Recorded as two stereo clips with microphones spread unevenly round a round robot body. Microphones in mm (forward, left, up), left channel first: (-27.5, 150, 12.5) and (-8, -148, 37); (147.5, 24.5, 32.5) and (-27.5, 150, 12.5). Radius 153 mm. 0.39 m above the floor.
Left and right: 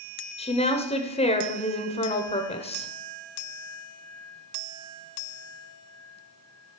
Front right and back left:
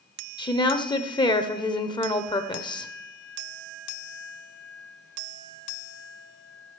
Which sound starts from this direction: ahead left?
A woman speaking, at 0.4 s.